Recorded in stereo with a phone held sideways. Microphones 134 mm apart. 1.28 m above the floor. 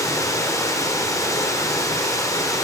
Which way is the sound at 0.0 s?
25° left (ahead or behind).